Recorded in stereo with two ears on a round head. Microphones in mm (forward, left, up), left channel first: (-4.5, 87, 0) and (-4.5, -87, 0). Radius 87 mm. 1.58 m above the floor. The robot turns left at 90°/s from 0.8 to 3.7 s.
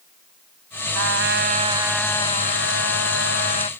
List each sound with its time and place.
0.9 s a trumpet: 85° right; by 3.7 s 25° left